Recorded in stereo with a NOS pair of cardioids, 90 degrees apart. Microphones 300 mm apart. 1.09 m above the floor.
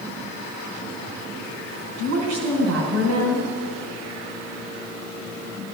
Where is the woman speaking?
60° right, 4 m.